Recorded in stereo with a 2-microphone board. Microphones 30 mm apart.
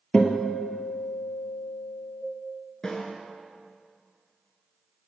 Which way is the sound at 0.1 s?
35° left (ahead or behind).